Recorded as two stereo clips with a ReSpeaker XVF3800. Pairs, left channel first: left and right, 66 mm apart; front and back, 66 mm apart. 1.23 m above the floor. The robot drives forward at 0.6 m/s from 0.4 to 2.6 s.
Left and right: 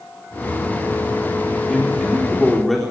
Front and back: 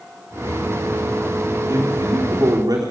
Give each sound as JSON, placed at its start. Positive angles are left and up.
{"t": 1.7, "sound": "a man speaking", "azimuth_deg": 175, "distance_m": 3.5}